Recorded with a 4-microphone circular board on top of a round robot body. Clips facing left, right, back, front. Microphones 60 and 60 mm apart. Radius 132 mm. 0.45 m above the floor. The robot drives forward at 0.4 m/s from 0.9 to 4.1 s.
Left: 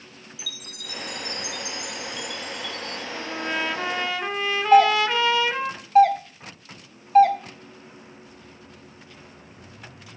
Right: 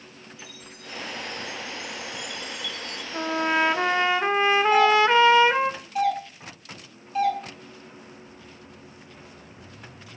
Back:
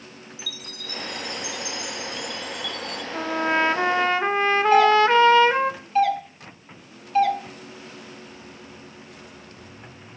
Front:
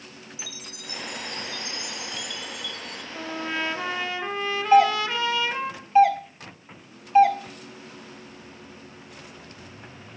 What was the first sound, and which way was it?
A chime, 70° left.